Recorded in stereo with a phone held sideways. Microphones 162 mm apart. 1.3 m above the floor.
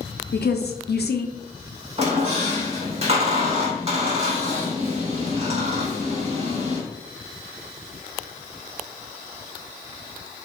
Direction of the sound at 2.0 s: 40° right (ahead or behind).